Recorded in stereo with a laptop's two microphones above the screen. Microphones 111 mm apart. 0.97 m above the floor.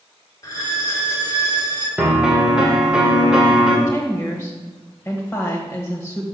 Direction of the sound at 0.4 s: 30° left (ahead or behind).